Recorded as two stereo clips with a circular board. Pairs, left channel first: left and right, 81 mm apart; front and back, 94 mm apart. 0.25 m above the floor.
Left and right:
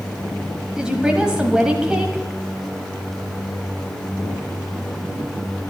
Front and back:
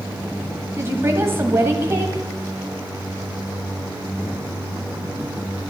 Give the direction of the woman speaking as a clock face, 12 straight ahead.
5 o'clock.